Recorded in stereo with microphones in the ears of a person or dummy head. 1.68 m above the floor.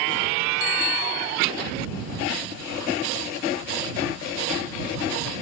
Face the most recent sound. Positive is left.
turn(degrees=75)  # may be behind; listen again after turning